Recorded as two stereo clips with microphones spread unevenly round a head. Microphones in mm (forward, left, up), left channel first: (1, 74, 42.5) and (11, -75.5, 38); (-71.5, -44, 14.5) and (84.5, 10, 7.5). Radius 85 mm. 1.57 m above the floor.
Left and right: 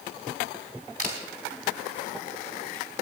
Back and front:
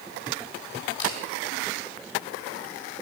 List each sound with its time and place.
1.0 s a camera shutter: 135° left, 4 m